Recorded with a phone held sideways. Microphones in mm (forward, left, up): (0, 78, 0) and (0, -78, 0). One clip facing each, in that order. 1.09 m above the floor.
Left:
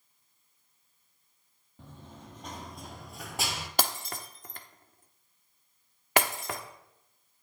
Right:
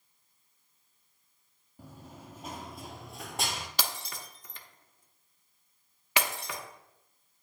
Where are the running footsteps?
10° right (ahead or behind), 1.7 m; by 3.7 s 5° left (ahead or behind), 1.1 m.